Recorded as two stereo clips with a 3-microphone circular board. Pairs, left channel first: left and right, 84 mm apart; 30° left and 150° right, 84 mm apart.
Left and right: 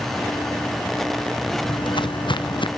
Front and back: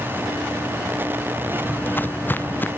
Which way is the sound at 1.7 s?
95° left.